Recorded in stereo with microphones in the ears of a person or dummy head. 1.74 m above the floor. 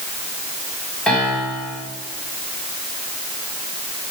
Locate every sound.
1.1 s a piano: 5° left (ahead or behind), 3.5 m